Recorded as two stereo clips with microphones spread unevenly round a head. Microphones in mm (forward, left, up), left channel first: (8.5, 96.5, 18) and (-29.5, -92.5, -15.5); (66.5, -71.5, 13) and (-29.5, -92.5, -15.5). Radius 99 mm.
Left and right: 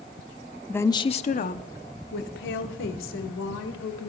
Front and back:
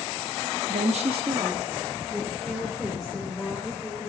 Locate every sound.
0.7 s a woman speaking: 165° left, 0.7 m; by 4.1 s 100° left, 2.5 m